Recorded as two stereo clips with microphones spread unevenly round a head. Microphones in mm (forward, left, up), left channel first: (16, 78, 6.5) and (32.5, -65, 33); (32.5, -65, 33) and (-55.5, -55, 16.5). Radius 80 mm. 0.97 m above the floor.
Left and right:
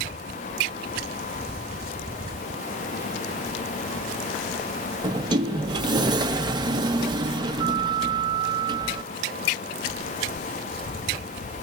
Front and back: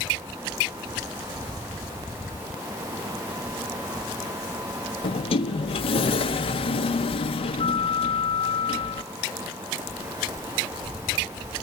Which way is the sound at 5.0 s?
20° right.